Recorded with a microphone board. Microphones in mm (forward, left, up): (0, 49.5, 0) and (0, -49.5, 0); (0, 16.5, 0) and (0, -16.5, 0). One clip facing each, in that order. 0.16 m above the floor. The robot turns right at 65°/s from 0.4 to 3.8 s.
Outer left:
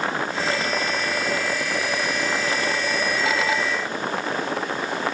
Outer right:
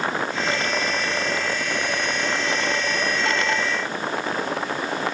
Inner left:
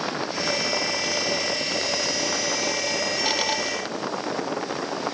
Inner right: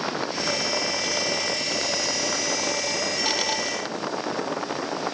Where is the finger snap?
I don't hear a finger snap.